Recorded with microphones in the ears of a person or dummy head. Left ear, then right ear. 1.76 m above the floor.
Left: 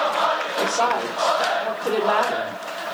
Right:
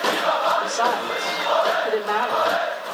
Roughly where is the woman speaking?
Right.